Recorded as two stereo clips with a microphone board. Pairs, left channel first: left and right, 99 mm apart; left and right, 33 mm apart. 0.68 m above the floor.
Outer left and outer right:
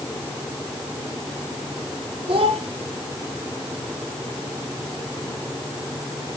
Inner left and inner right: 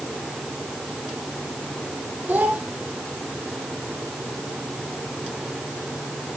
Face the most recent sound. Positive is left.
turn(degrees=-65)  # may be behind; listen again after turning